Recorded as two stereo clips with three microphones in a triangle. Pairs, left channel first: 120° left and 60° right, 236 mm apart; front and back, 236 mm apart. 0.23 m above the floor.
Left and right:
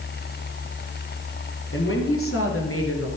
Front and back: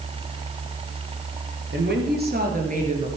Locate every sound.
1.7 s a woman speaking: 145° left, 3.5 m; by 3.1 s 120° left, 3 m